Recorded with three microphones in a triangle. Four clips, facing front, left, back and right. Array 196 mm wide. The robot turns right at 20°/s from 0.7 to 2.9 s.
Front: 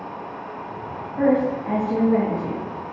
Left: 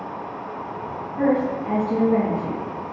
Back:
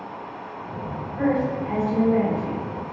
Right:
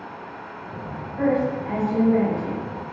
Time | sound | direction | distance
1.2 | a woman speaking | 20° left | 1.7 m